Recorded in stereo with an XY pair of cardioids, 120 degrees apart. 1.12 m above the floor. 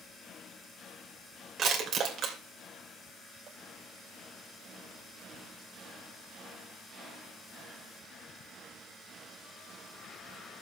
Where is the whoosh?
No whoosh in this recording.